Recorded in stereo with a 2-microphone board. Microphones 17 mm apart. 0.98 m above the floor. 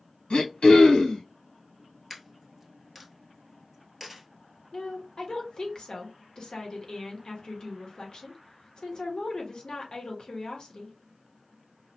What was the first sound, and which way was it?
Throat clearing, 70° left (ahead or behind).